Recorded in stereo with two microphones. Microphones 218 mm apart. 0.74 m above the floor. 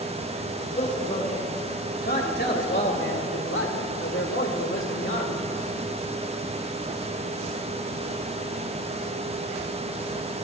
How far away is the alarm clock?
No alarm clock in this recording.